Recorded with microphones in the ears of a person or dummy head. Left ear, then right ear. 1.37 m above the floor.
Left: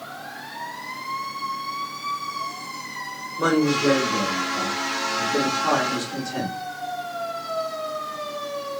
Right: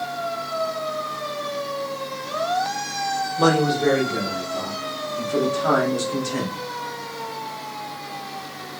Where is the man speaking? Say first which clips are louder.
Right 1 dB; 75° right (ahead or behind), 4 m.